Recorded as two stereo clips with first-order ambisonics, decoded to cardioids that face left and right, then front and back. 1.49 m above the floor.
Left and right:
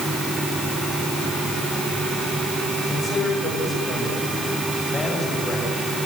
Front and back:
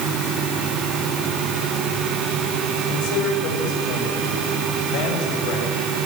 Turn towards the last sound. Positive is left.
turn(degrees=15)